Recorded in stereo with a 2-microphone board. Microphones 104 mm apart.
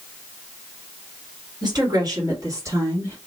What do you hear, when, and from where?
1.6 s a woman speaking: 40° right (ahead or behind), 2 m; by 3.2 s 20° right (ahead or behind), 2 m